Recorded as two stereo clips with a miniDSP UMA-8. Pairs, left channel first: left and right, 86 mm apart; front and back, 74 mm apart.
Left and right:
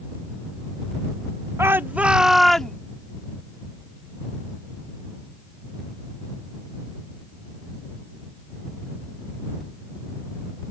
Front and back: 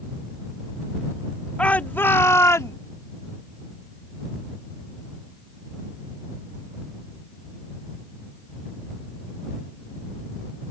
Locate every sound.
1.6 s a shout: 60° right; by 2.8 s 10° left